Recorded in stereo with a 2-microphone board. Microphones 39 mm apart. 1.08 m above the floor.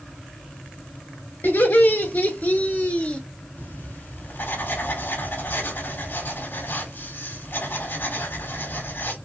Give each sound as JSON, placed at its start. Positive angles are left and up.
{"t": 1.4, "sound": "laughter", "side_deg": 65, "distance_m": 2.5}
{"t": 3.6, "sound": "writing", "side_deg": 75, "distance_m": 3.0}